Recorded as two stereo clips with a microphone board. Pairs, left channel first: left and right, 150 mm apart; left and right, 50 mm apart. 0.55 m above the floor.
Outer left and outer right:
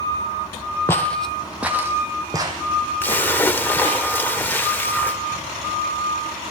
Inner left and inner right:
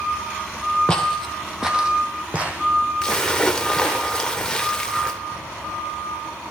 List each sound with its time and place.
0.9 s footsteps: 15° left (ahead or behind), 1.1 m; by 4.0 s 45° right (ahead or behind), 2.5 m
3.0 s a splash: 15° left (ahead or behind), 0.7 m